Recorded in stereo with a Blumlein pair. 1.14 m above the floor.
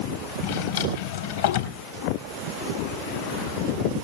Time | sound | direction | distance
0.4 | a drawer | 60° left | 3.5 m